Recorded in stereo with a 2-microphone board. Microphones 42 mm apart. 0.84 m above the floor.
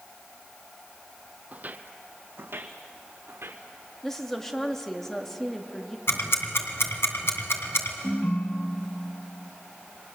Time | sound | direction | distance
1.5 | footsteps | 40° right (ahead or behind) | 1.2 m
4.0 | a woman speaking | 10° left (ahead or behind) | 1.8 m
6.1 | ticking | 75° left (ahead or behind) | 3 m
8.0 | a ringtone | 85° left | 5 m